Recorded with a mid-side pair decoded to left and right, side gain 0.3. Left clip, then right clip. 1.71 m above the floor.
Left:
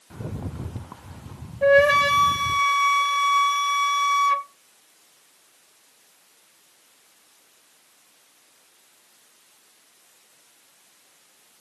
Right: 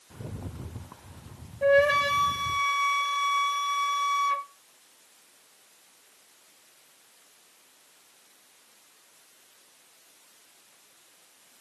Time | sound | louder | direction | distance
0.1 | a rattle | left 6 dB | 60° left | 0.5 m
1.6 | a flute | left 5 dB | 50° left | 0.6 m